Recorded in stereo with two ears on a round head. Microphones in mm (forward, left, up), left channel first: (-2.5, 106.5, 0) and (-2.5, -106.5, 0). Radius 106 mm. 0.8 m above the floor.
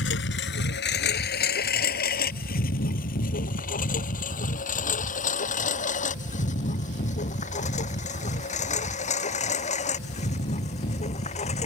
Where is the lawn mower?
50° left (ahead or behind); by 11.7 s 30° left (ahead or behind).